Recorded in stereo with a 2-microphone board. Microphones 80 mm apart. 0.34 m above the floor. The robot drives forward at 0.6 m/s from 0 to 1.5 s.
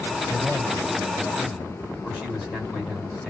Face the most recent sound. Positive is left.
turn(degrees=-5)  # may be behind; listen again after turning